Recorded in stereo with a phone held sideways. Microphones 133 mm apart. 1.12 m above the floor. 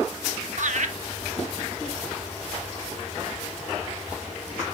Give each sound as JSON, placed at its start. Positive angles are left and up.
{"t": 0.6, "sound": "laughter", "side_deg": -65, "distance_m": 0.8}